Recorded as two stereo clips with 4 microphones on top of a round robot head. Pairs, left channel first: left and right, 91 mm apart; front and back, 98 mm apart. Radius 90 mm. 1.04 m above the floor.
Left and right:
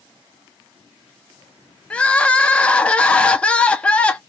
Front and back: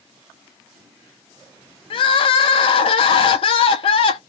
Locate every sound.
1.9 s crying: 15° left, 0.5 m